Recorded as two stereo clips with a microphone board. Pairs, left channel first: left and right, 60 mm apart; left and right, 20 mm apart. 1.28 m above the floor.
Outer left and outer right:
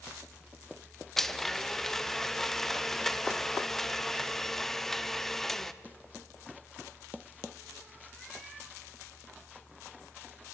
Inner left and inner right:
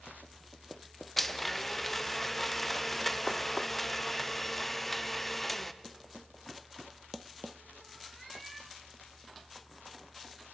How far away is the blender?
About 0.6 m.